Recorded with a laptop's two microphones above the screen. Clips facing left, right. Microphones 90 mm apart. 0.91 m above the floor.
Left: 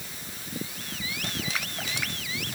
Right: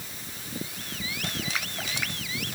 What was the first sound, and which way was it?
Only background noise.